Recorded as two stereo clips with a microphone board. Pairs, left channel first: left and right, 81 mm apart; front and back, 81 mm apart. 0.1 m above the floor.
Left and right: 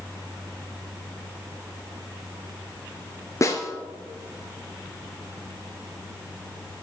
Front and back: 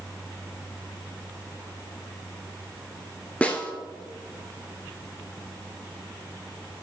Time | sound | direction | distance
3.4 | a snare drum | 70° left | 0.9 m